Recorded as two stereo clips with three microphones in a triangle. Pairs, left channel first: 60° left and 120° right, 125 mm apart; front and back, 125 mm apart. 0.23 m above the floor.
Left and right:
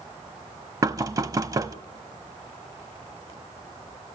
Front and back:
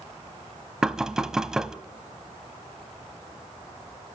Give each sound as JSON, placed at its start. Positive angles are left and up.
{"t": 0.8, "sound": "knocking", "azimuth_deg": -100, "distance_m": 0.7}